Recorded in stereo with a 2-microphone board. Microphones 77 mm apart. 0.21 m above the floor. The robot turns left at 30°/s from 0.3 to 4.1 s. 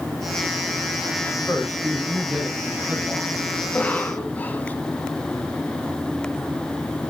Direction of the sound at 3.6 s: 15° left (ahead or behind).